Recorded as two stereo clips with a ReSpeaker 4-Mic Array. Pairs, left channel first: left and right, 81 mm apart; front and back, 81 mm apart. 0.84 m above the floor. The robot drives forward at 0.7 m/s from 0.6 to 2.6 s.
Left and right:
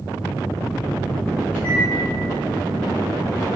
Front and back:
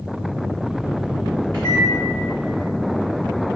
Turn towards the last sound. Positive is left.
turn(degrees=165)